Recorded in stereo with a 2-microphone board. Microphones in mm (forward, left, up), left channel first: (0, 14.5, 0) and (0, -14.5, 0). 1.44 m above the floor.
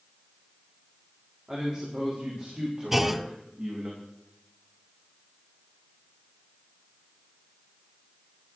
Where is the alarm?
No alarm in this recording.